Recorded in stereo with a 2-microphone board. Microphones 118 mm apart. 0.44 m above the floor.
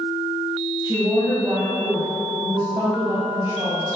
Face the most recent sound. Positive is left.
turn(degrees=-25)  # may be behind; listen again after turning